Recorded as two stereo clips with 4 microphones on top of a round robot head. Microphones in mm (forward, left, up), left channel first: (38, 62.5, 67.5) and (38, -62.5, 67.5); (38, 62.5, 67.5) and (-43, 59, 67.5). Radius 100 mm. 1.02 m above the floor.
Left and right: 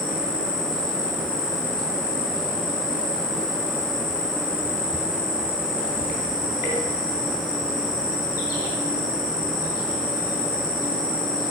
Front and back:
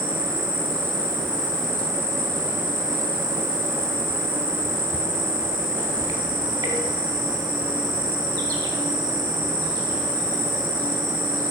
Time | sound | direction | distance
0.0 | an insect | 155° left | 1.7 m